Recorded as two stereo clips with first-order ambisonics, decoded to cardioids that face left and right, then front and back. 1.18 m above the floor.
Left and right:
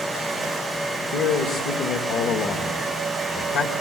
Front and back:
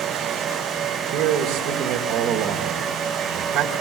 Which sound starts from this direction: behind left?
A man speaking, at 1.1 s.